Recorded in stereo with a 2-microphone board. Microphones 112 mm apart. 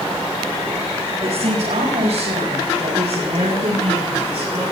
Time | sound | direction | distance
1.2 | a woman speaking | 80° right | 5 m